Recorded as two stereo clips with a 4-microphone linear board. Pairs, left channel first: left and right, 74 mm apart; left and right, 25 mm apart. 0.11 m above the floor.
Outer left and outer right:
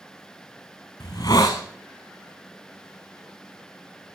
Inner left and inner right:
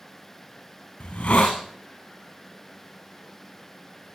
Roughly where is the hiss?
Left.